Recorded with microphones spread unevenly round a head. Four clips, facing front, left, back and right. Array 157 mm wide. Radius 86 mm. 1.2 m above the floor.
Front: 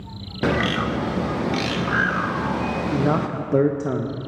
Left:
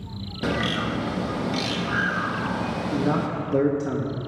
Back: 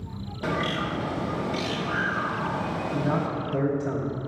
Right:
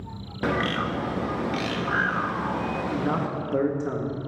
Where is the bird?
5° right, 0.7 m.